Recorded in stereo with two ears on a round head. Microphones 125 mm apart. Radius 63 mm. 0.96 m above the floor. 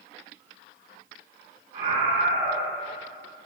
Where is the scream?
55° right (ahead or behind), 5 m.